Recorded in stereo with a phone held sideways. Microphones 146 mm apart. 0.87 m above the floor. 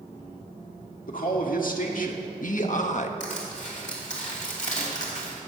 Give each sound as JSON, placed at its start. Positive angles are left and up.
{"t": 1.1, "sound": "a man speaking", "side_deg": 70, "distance_m": 1.9}
{"t": 3.2, "sound": "crushing", "side_deg": 55, "distance_m": 2.5}